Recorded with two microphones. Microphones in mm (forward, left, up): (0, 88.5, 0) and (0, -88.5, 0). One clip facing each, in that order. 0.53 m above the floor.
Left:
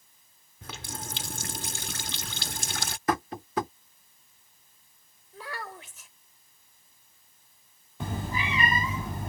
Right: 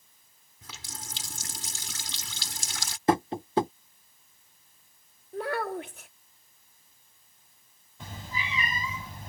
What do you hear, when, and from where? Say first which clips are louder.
0.6 s a running tap: left 7 dB; 60° left (ahead or behind)
3.1 s tapping: right 5 dB; 25° right (ahead or behind)
5.3 s a child speaking: right 10 dB; 60° right (ahead or behind)
8.0 s a cat meowing: left 7 dB; 80° left